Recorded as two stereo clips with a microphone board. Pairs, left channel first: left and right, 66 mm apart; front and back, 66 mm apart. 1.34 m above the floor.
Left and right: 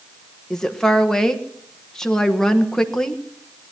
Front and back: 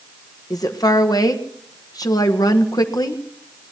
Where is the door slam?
No door slam in this recording.